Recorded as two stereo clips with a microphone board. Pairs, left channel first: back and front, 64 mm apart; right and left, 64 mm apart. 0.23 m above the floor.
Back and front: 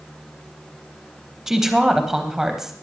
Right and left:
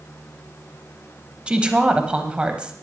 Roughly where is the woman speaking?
Left.